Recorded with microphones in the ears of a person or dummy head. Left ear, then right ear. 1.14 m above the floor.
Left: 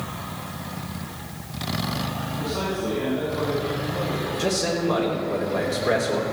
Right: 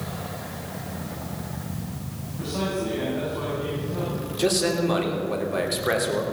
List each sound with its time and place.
2.4 s a man speaking: 75° right (ahead or behind), 6.5 m
4.4 s a man speaking: 45° right (ahead or behind), 3 m